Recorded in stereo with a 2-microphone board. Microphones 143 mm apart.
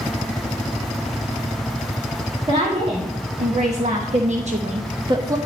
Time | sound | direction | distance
2.5 | a woman speaking | 45° right (ahead or behind) | 2 m